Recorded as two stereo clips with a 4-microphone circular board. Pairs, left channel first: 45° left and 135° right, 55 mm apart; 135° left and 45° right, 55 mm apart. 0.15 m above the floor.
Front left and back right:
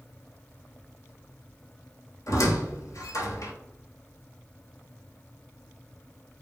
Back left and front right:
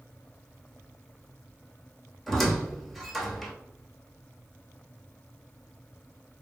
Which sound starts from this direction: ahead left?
A squeak, at 2.3 s.